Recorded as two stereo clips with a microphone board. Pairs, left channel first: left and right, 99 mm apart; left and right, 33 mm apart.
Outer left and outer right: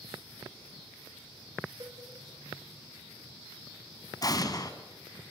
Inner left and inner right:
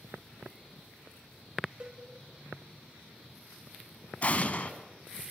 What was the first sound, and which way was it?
A cowbell, 35° right (ahead or behind).